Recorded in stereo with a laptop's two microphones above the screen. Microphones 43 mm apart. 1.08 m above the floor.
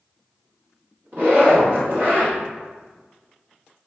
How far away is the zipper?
About 1.3 m.